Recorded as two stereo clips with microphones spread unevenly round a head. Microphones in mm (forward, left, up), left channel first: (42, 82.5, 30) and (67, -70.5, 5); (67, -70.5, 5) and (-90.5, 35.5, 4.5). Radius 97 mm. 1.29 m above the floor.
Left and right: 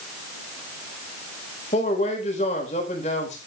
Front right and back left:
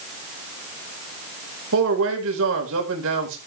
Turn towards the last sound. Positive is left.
turn(degrees=160)